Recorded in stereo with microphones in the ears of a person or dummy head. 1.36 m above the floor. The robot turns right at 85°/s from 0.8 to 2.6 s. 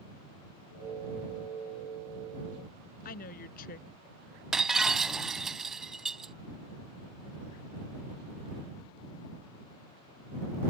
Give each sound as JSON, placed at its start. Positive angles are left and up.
{"t": 3.0, "sound": "a woman speaking", "side_deg": 55}
{"t": 4.5, "sound": "breaking glass", "side_deg": -5}